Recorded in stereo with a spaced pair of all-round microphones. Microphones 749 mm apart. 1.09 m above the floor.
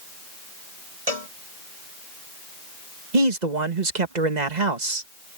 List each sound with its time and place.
1.1 s a cowbell: 50° right (ahead or behind)
3.1 s a man speaking: 65° right (ahead or behind)